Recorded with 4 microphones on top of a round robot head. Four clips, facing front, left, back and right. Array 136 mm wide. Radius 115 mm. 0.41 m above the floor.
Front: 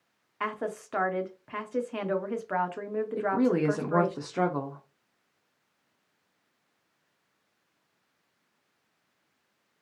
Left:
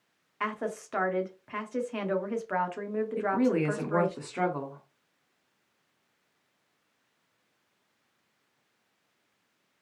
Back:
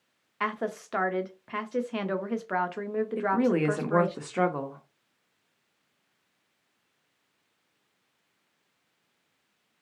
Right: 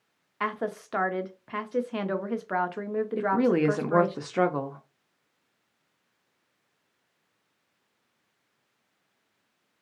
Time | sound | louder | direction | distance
0.4 | a woman speaking | right 2 dB, back 2 dB | 120° right | 0.9 m
3.2 | a woman speaking | right 3 dB, even | 100° right | 0.9 m